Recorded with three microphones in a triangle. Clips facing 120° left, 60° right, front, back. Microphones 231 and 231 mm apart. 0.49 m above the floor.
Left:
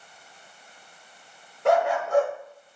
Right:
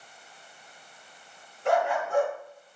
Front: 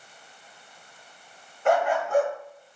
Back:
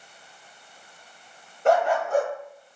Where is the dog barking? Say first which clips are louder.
Left 4 dB, back 2 dB; 130° left, 0.9 m.